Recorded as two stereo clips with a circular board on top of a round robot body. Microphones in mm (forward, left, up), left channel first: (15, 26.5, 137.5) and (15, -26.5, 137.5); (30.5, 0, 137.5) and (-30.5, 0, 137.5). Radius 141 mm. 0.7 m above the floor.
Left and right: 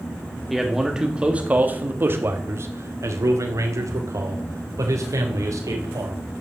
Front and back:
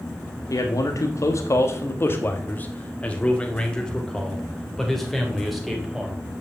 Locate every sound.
0.5 s a man speaking: straight ahead, 1.8 m; by 6.2 s 95° right, 4.5 m